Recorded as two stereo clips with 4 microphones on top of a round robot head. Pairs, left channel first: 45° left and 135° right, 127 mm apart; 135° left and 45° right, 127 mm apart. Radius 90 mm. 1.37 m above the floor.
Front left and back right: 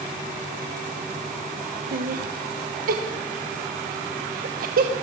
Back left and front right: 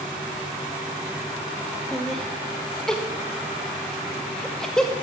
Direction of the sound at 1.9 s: 140° right.